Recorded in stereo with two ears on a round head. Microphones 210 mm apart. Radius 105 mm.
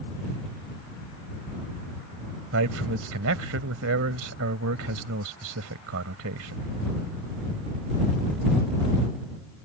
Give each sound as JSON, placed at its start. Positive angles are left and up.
{"t": 2.5, "sound": "a man speaking", "side_deg": -65}